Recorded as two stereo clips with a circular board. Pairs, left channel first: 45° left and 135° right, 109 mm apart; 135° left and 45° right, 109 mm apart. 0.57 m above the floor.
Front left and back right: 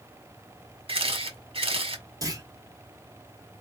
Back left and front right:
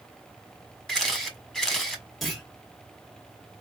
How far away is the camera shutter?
About 1.3 m.